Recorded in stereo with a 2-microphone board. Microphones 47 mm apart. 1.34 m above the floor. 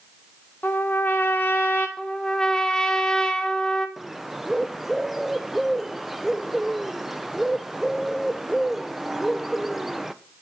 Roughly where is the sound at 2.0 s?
Centre.